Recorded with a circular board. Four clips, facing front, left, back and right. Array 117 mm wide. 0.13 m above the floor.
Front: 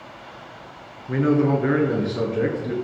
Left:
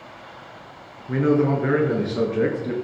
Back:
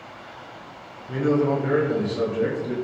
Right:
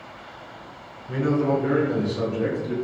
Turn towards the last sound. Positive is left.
turn(degrees=65)